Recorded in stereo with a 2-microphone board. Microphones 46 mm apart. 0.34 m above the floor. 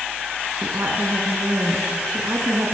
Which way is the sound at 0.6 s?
50° right (ahead or behind).